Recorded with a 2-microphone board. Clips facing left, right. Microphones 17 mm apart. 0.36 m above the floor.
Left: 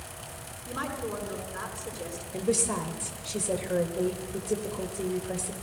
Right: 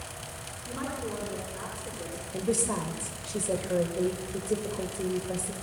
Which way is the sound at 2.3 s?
30° left (ahead or behind).